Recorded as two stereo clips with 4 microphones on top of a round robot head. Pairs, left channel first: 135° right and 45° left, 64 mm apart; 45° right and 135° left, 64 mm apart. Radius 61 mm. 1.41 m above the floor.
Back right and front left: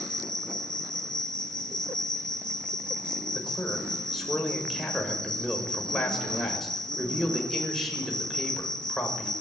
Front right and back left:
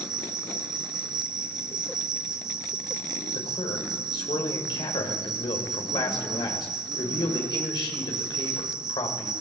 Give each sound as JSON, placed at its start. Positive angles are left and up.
{"t": 0.0, "sound": "an insect", "azimuth_deg": 140, "distance_m": 6.5}
{"t": 3.4, "sound": "a man speaking", "azimuth_deg": -45, "distance_m": 7.0}